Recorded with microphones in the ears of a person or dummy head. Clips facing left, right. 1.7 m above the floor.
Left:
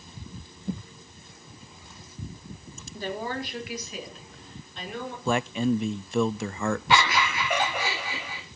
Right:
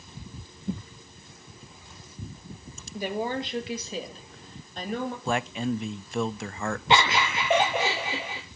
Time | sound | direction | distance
2.9 | a woman speaking | 10° right (ahead or behind) | 2 m
5.2 | a man speaking | 80° left | 0.5 m
6.9 | laughter | 25° right (ahead or behind) | 1.1 m